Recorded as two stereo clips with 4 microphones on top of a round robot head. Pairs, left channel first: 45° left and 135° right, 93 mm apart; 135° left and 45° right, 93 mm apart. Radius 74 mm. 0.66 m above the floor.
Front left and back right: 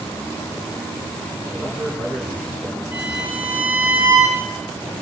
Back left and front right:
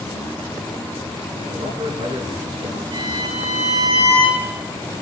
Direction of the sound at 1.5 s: 65° right.